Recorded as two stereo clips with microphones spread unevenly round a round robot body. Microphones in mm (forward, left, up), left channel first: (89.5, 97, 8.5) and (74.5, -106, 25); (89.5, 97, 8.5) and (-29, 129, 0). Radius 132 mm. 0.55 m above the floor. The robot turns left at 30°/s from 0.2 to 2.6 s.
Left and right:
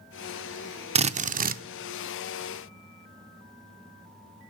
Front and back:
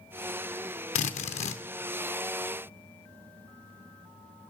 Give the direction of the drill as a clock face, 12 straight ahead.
1 o'clock.